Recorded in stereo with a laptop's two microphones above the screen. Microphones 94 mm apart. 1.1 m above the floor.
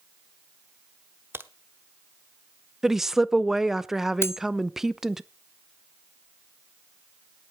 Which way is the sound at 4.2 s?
30° left (ahead or behind).